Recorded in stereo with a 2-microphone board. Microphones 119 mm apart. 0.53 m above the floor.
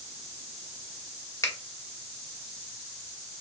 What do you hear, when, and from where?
1.4 s a finger snap: 25° left (ahead or behind), 1.0 m